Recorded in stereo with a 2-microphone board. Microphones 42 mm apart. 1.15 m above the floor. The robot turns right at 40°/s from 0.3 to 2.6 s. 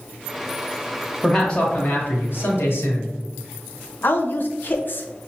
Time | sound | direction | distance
1.2 | a man speaking | 10° left | 1.3 m
4.0 | a woman speaking | 50° left (ahead or behind) | 0.6 m